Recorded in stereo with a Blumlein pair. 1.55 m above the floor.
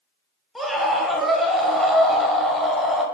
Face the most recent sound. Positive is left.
turn(degrees=0)